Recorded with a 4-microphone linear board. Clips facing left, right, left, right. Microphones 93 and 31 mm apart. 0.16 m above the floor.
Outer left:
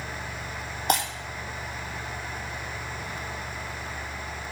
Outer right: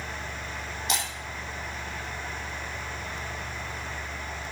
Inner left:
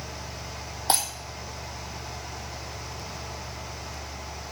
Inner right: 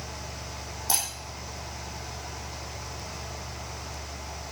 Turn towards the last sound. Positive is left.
turn(degrees=50)  # may be behind; listen again after turning